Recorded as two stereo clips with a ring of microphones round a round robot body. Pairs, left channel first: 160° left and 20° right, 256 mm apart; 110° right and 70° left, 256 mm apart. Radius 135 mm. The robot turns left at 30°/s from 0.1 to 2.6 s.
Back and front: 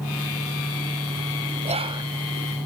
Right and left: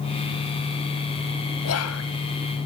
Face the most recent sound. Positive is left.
turn(degrees=-115)